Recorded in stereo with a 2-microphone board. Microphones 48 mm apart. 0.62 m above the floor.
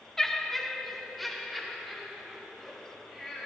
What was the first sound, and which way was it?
Laughter, 10° left (ahead or behind).